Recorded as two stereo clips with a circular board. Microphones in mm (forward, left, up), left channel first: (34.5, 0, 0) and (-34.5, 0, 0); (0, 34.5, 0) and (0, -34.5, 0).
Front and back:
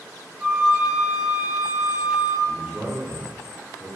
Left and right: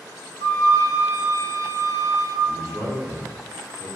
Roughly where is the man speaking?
Behind right.